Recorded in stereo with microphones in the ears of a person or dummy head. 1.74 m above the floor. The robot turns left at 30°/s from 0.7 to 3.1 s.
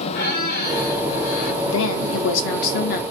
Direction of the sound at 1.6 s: 85° left.